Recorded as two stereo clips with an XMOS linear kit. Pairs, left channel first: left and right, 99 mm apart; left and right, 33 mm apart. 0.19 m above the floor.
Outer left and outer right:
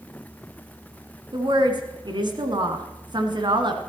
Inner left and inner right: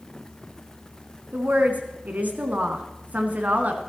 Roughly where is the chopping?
I don't hear chopping.